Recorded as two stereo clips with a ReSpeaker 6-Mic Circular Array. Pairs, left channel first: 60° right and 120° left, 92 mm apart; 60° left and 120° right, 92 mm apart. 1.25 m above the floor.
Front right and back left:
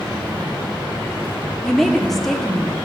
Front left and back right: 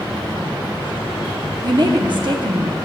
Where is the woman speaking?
150° right, 0.8 m.